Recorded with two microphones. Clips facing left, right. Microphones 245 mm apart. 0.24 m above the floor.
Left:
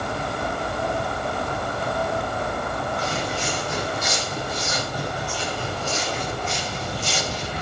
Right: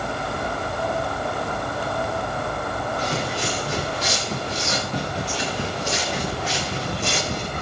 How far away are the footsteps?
About 5 m.